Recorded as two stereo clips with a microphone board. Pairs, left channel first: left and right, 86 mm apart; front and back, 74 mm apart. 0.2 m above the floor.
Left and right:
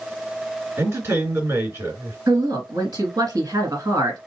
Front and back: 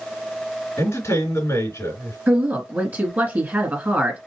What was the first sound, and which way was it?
A man speaking, 35° right.